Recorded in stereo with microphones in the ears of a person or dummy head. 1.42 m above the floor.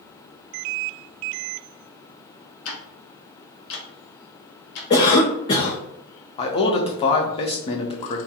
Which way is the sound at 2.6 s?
55° left (ahead or behind).